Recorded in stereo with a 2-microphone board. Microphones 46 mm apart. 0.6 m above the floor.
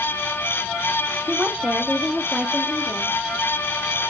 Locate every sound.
1.3 s a woman speaking: 30° right (ahead or behind), 0.8 m; by 3.2 s centre (ahead or behind), 1.1 m